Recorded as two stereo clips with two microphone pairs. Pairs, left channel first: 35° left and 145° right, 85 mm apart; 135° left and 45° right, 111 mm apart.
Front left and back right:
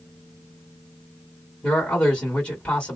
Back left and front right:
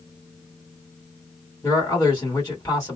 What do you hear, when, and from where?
1.6 s a man speaking: 105° left, 1.8 m